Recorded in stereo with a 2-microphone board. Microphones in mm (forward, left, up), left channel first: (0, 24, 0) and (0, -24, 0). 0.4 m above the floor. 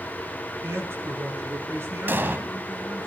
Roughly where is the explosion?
Right.